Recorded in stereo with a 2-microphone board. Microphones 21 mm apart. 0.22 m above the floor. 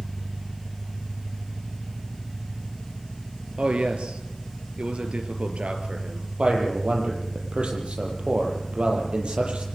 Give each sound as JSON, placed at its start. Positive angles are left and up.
{"t": 0.0, "sound": "an engine running", "side_deg": 75, "distance_m": 4.0}
{"t": 3.6, "sound": "a man speaking", "side_deg": -65, "distance_m": 4.0}
{"t": 6.4, "sound": "a man speaking", "side_deg": -60, "distance_m": 7.5}